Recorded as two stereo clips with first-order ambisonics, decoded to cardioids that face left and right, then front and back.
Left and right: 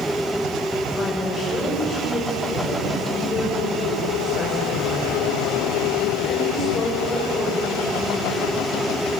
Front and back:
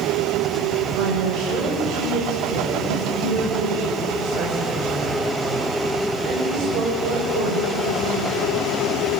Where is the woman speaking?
160° left, 6.5 m.